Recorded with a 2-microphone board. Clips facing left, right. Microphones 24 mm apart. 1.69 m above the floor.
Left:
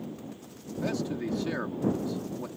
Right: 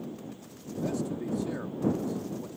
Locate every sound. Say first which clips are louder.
0.8 s a man speaking: left 1 dB; 45° left (ahead or behind)